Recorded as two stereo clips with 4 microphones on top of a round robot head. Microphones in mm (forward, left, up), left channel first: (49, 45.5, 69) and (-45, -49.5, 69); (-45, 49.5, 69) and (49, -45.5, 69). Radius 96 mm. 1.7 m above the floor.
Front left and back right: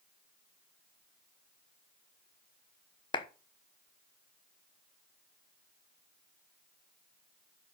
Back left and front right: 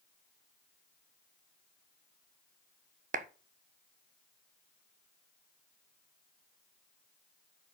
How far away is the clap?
About 1.1 m.